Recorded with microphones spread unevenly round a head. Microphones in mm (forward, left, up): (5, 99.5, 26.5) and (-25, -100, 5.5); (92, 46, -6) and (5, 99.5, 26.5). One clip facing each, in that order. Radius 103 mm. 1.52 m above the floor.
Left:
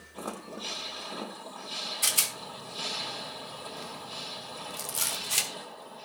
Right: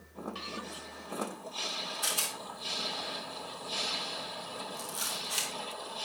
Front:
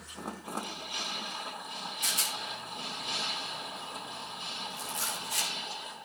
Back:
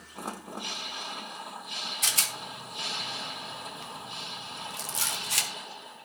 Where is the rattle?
140° left, 2.5 m.